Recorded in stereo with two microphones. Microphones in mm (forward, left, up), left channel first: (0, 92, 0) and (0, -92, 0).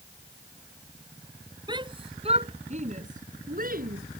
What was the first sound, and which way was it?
A shout, 25° right (ahead or behind).